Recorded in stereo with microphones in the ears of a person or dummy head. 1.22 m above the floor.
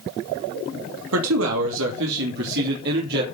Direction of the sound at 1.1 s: 75° right (ahead or behind).